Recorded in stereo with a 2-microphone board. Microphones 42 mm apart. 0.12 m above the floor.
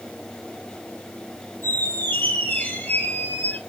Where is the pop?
I don't hear a pop.